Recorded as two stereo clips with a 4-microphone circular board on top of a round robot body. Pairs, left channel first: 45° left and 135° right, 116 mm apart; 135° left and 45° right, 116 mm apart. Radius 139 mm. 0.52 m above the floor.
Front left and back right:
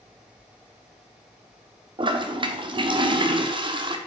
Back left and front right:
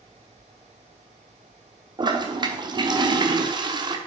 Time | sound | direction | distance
2.0 | a toilet flushing | 95° right | 1.2 m